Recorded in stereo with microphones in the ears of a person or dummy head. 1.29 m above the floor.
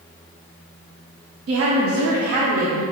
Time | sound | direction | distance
1.5 | a woman speaking | 70° right (ahead or behind) | 0.6 m